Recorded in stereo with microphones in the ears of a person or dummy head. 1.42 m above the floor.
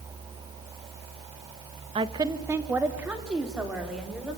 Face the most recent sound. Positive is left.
turn(degrees=0)  # may be behind; listen again after turning